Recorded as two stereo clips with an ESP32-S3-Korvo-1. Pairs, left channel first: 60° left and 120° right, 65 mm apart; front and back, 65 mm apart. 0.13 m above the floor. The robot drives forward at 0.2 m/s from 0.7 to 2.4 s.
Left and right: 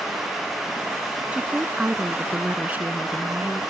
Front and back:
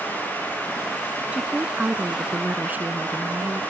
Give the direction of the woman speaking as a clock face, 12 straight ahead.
5 o'clock.